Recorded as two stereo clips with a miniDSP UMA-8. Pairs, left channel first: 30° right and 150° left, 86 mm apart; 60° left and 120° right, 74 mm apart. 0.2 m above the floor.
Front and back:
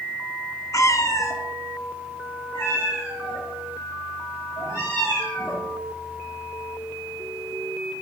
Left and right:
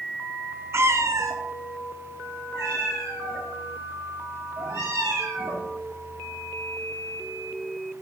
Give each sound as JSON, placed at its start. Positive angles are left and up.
{"t": 0.7, "sound": "a cat meowing", "azimuth_deg": -75, "distance_m": 0.5}